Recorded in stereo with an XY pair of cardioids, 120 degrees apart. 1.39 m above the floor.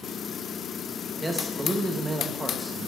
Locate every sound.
1.2 s a man speaking: 5° right, 2 m